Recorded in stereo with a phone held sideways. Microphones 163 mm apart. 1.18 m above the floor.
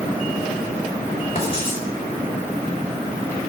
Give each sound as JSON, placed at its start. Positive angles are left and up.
{"t": 1.4, "sound": "writing", "side_deg": 40, "distance_m": 5.5}